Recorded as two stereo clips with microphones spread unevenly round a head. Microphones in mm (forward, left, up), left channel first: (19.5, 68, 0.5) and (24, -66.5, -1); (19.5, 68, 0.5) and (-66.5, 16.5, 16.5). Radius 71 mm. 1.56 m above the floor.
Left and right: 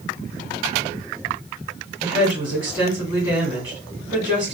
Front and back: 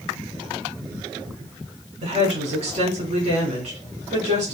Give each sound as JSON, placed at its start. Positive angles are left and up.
{"t": 2.0, "sound": "a woman speaking", "azimuth_deg": -150, "distance_m": 2.5}